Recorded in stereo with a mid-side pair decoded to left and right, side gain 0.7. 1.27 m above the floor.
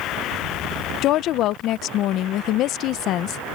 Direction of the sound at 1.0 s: 55° left.